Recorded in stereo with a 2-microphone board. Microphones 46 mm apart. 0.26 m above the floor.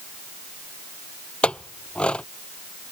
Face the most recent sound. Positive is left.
turn(degrees=25)  # may be behind; listen again after turning